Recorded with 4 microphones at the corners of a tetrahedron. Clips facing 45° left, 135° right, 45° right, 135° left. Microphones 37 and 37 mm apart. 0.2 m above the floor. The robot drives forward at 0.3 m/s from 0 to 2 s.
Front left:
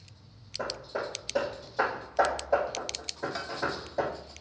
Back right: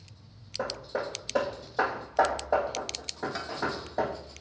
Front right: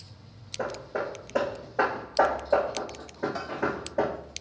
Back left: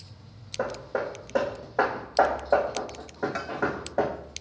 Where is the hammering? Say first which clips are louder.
Back right 2 dB, back left 2 dB; 155° left, 3 m.